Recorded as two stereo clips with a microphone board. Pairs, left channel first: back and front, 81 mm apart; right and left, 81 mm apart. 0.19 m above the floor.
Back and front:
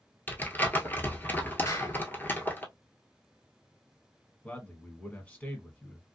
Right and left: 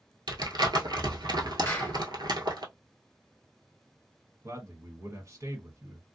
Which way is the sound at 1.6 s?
150° right.